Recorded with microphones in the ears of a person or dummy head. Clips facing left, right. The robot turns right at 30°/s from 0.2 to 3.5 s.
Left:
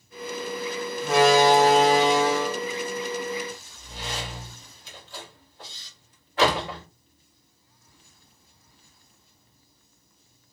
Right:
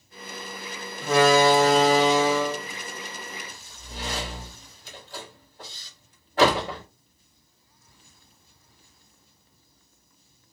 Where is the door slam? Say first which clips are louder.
Even; 55° right (ahead or behind), 1.4 m; by 6.8 s 35° right (ahead or behind), 1.4 m.